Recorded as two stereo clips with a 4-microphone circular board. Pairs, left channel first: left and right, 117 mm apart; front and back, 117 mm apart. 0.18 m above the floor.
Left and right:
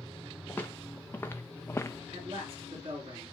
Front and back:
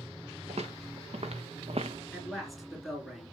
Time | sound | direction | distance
0.5 | footsteps | 165° left | 1.6 m
2.1 | a man speaking | 90° right | 2.5 m